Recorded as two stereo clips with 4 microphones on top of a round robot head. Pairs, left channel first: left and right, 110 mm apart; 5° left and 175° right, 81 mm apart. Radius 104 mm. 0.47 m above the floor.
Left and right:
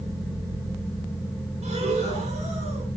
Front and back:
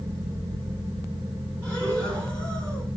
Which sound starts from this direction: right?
Breathing, at 1.6 s.